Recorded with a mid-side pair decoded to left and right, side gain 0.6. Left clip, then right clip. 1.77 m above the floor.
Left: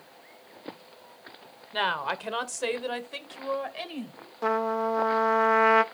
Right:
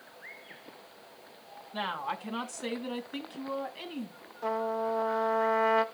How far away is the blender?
I don't hear a blender.